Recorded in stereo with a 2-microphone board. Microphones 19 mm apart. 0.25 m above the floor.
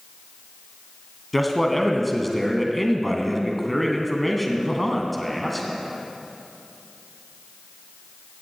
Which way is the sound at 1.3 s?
5° left (ahead or behind).